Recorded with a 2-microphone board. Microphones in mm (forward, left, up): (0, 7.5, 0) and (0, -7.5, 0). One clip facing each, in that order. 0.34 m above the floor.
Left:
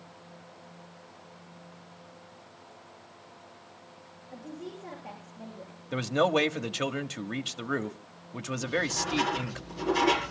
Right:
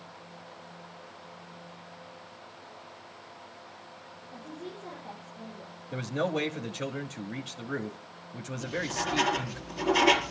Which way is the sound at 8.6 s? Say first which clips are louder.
Left 2 dB; 35° right (ahead or behind).